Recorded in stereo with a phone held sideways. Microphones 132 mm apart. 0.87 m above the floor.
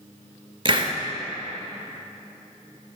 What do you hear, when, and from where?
0.7 s a hiss: 40° right (ahead or behind), 0.6 m